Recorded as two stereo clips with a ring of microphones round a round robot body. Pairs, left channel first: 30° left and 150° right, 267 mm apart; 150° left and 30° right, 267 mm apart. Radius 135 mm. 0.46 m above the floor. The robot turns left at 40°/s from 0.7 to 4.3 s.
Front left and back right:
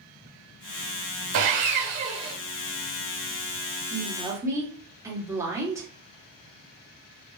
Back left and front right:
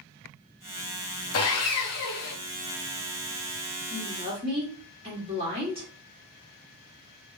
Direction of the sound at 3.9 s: 65° right.